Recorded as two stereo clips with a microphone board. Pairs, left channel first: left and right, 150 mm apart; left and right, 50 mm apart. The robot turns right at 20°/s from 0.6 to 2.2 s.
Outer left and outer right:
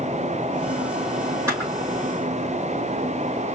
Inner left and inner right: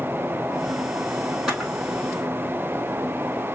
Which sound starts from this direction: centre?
A camera shutter, at 1.5 s.